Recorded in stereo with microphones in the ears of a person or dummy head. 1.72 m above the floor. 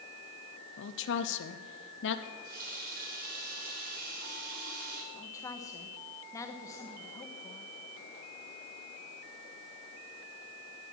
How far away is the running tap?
About 3.5 m.